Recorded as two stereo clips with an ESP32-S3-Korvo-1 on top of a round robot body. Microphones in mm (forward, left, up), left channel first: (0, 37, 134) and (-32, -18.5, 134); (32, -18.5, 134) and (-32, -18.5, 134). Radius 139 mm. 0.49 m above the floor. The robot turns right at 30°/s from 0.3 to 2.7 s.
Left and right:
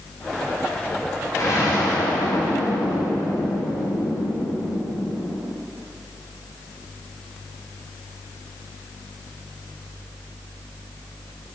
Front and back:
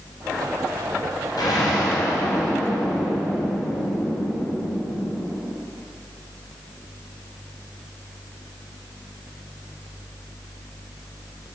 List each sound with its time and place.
1.4 s an explosion: 20° left, 1.4 m; by 5.5 s 60° left, 1.4 m